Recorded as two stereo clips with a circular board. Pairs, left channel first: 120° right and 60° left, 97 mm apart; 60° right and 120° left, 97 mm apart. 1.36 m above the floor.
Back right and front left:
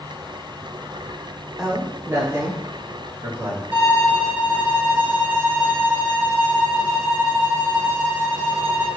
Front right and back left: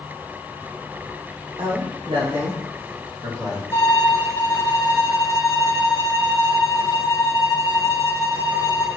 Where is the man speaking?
145° left, 0.9 m; by 3.6 s 105° left, 3 m.